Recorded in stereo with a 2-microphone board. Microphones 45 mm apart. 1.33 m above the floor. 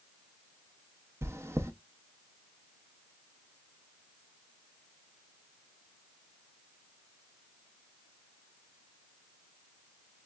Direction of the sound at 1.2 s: 80° right.